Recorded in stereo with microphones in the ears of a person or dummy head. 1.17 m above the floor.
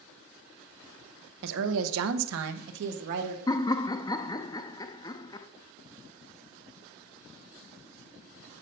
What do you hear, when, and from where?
1.4 s a woman speaking: 60° right (ahead or behind), 0.9 m; by 3.4 s 55° right (ahead or behind), 1.3 m
3.5 s laughter: 25° left (ahead or behind), 0.6 m